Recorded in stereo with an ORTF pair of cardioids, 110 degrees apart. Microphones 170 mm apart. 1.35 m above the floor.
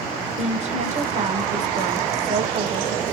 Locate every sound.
0.4 s a woman speaking: 45° right, 1.2 m